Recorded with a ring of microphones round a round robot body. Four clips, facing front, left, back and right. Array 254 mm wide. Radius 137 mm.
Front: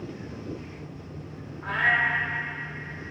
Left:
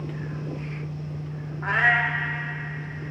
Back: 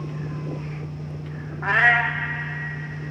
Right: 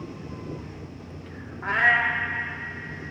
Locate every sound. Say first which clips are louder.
1.6 s a cat meowing: even, back 6 dB; straight behind, 0.6 m